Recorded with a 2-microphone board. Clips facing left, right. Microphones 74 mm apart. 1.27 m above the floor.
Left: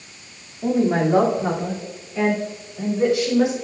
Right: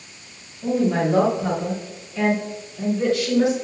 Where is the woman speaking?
40° left (ahead or behind), 2.5 m; by 3.5 s 20° left (ahead or behind), 4 m.